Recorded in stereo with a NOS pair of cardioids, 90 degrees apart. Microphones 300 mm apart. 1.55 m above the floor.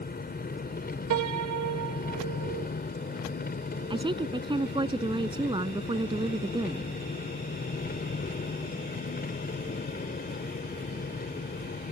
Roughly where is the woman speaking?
Ahead.